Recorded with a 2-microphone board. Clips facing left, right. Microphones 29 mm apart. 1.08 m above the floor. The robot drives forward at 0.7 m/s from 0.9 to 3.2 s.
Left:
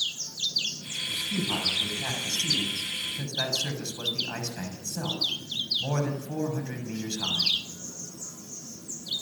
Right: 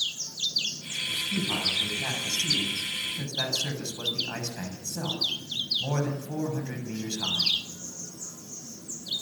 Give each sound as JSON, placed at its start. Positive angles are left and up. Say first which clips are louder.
{"t": 1.0, "sound": "a man speaking", "louder": "right 1 dB", "side_deg": 20, "distance_m": 8.5}